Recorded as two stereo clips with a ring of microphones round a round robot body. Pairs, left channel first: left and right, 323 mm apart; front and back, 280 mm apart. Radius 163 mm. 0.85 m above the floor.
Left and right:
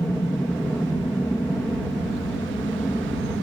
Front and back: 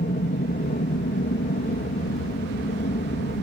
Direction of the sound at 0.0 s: 10° left.